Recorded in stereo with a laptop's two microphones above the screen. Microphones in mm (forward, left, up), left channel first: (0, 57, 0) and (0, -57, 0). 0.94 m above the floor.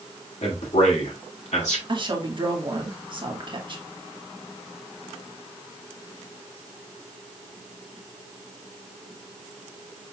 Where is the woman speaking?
45° right (ahead or behind), 1.4 m.